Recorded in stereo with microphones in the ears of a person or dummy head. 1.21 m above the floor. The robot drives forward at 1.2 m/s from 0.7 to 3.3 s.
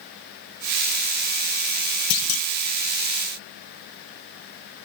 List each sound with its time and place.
2.1 s a clunk: 55° left (ahead or behind), 1.0 m; by 2.5 s 75° left (ahead or behind), 0.9 m